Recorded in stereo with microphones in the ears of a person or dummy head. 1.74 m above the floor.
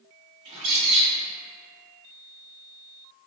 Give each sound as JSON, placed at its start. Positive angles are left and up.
{"t": 0.5, "sound": "a bird", "side_deg": -25, "distance_m": 1.1}